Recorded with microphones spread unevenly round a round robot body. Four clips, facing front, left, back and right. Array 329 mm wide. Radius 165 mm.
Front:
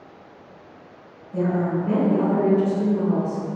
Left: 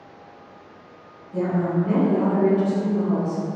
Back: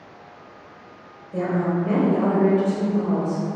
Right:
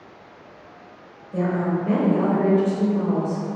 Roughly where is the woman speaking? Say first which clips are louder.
Even, even; behind right.